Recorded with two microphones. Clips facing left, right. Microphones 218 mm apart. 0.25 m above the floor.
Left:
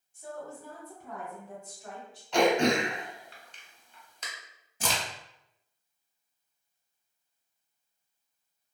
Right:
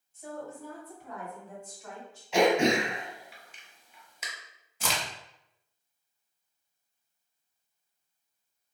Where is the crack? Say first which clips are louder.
Left 1 dB; 50° left (ahead or behind), 0.7 m.